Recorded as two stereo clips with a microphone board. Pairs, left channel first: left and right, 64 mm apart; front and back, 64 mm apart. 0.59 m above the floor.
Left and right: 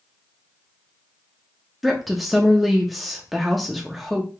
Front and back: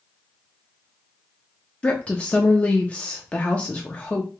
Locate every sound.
1.8 s a woman speaking: straight ahead, 0.6 m